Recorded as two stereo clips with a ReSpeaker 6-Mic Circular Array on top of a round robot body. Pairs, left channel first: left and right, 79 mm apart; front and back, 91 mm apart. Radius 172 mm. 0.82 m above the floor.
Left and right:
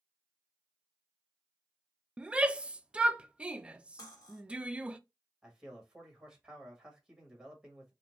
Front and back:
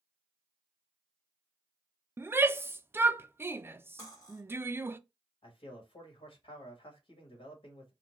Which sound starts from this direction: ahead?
A man speaking, at 5.4 s.